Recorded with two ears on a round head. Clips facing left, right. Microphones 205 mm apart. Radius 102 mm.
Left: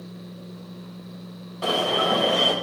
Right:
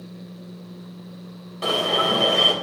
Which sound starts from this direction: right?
An alarm, at 1.6 s.